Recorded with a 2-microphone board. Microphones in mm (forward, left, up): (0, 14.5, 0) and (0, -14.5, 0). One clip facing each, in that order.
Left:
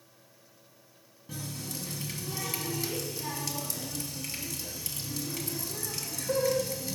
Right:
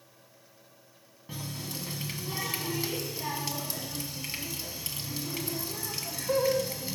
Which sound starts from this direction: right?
A running tap, at 1.3 s.